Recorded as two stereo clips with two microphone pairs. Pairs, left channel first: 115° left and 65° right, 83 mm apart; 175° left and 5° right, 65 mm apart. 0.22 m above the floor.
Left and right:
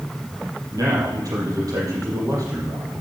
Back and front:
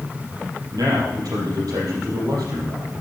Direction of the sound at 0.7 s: 20° right.